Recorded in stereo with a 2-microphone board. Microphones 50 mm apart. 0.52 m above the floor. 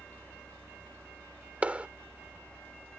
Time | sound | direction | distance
1.6 | a clap | 25° right (ahead or behind) | ?